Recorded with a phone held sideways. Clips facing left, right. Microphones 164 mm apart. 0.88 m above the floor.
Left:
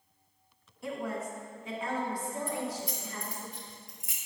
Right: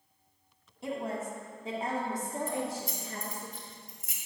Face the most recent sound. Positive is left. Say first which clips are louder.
# right 1 dB
turn(degrees=-45)  # may be behind; listen again after turning